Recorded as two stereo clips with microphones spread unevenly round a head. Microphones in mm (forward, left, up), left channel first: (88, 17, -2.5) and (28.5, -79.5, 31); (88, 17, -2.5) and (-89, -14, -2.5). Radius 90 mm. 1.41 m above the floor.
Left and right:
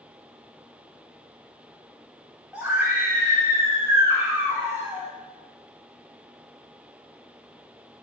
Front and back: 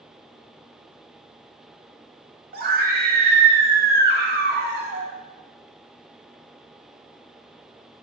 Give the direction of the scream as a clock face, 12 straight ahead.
7 o'clock.